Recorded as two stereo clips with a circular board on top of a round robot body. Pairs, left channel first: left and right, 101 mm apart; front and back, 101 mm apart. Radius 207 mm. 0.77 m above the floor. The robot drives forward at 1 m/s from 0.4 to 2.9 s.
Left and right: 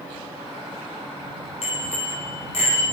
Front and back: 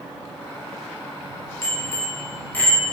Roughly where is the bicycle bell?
Left.